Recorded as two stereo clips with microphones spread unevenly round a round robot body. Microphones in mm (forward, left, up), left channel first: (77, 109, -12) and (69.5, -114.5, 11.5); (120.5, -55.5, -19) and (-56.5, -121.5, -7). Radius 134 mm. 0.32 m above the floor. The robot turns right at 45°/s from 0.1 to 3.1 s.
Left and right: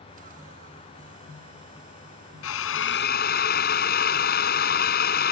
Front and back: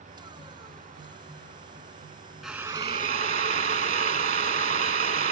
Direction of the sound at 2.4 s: 110° left.